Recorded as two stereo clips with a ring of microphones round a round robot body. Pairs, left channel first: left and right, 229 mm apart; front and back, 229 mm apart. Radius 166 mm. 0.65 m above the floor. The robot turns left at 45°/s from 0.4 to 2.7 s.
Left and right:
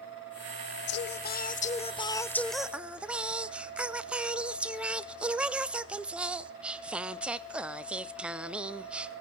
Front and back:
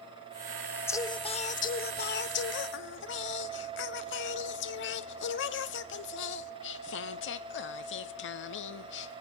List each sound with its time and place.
0.9 s singing: 75° left, 0.6 m; by 9.1 s 5° right, 0.6 m